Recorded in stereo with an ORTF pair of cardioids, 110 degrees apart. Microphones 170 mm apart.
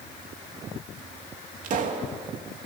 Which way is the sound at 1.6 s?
50° right.